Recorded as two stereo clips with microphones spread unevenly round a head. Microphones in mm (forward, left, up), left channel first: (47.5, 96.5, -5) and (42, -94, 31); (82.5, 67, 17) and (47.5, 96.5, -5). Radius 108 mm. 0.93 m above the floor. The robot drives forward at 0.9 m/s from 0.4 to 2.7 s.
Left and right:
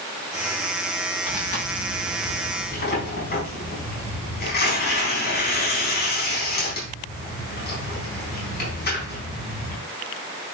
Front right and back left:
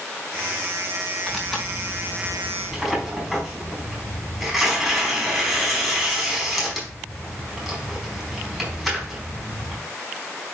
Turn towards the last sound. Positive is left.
turn(degrees=50)